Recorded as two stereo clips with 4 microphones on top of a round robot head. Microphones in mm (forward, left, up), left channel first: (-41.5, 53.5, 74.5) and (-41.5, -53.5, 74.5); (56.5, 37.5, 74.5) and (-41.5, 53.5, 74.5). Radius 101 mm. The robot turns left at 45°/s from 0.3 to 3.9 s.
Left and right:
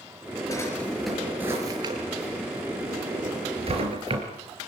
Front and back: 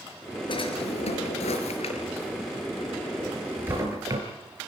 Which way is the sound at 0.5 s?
25° left.